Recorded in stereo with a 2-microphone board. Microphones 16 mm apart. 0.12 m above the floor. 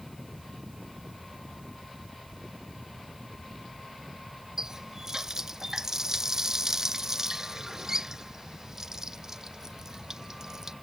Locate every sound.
4.6 s a running tap: 35° right (ahead or behind)